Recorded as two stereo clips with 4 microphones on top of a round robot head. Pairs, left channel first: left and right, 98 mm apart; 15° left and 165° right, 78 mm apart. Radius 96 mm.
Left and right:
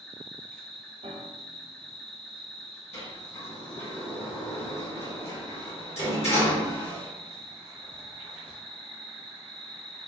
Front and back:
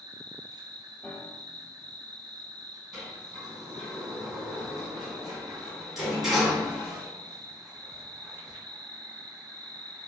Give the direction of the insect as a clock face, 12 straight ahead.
6 o'clock.